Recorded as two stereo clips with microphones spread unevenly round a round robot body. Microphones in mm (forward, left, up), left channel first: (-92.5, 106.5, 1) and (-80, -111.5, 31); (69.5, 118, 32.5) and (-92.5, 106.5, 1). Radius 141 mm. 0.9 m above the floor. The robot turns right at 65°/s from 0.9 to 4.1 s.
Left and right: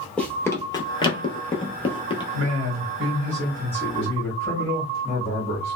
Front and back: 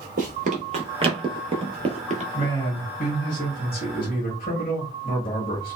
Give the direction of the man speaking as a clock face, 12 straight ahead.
3 o'clock.